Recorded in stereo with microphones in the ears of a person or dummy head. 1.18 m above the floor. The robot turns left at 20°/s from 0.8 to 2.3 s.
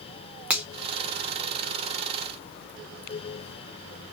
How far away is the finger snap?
About 0.5 m.